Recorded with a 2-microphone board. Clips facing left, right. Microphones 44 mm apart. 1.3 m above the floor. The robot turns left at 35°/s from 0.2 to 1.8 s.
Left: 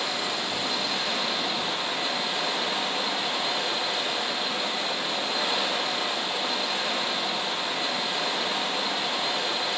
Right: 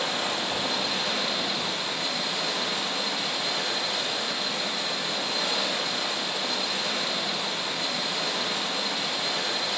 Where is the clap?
No clap in this recording.